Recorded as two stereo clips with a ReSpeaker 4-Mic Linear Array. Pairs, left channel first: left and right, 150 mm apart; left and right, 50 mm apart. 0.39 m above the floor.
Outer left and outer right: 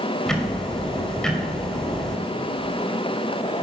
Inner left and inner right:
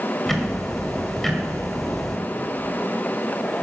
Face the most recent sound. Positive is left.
turn(degrees=5)  # may be behind; listen again after turning